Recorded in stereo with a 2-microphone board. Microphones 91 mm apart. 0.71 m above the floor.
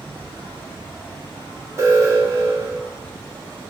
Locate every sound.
0.0 s an insect: 85° right, 6 m
1.8 s an alarm: 35° right (ahead or behind), 3.5 m